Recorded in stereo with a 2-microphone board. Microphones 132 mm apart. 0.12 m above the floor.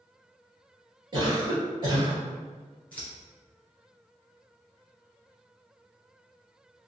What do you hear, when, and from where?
1.1 s a cough: 35° right (ahead or behind), 1.9 m
2.9 s scissors: 15° left (ahead or behind), 1.6 m